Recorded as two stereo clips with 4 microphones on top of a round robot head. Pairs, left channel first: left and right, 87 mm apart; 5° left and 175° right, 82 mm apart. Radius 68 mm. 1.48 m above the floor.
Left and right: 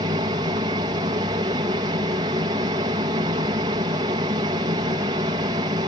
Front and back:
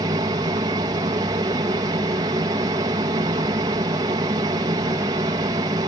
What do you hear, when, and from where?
0.0 s an aircraft: 130° right